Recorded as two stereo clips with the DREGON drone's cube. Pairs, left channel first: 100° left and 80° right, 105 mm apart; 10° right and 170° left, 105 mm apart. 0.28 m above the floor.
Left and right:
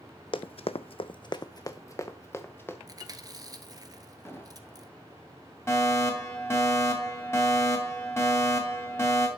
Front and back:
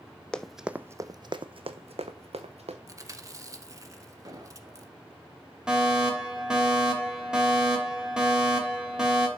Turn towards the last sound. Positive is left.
turn(degrees=95)